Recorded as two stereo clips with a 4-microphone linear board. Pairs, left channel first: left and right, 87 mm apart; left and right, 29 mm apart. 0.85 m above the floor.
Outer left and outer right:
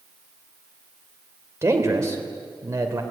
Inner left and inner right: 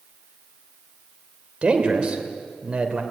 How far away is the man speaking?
About 3 m.